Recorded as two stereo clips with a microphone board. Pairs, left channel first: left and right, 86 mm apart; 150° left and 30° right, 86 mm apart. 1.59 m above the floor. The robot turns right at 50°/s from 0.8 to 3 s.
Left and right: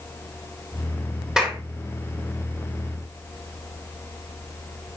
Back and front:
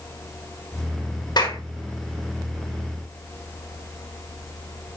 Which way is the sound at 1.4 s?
175° right.